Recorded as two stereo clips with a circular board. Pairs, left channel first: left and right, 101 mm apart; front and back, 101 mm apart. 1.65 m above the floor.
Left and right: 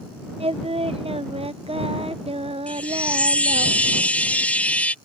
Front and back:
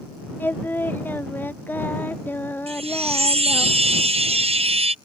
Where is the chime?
165° left.